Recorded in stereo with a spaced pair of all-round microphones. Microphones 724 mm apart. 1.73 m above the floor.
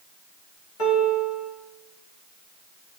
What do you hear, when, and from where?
0.8 s a piano: 75° left (ahead or behind), 2.5 m